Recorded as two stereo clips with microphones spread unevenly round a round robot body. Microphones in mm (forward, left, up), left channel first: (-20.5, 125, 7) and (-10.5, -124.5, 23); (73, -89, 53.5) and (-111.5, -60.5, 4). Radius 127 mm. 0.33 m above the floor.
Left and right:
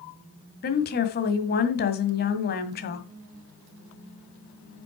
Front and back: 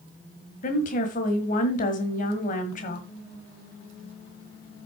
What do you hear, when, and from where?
0.6 s a woman speaking: 50° left, 1.8 m